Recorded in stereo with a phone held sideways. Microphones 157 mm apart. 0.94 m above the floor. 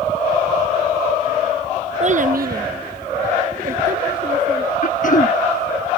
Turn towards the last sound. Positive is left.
turn(degrees=60)  # may be behind; listen again after turning